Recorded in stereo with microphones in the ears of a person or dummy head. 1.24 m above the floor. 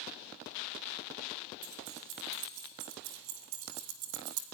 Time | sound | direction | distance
1.6 | keys jangling | 80° right | 3.5 m